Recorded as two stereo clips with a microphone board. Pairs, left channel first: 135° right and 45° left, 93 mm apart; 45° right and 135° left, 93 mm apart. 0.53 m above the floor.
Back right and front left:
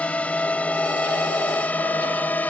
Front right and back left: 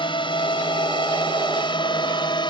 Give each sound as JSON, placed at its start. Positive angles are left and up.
{"t": 0.0, "sound": "a drone", "azimuth_deg": -60}